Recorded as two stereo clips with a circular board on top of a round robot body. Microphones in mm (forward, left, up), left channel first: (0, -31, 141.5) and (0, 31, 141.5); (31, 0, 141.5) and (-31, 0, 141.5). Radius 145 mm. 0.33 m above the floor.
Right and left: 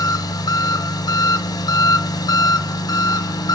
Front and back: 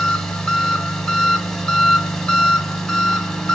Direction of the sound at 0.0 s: 80° right.